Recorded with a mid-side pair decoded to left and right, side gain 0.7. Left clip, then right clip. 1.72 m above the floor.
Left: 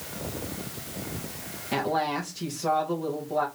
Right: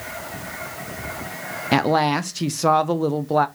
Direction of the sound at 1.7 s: 50° right.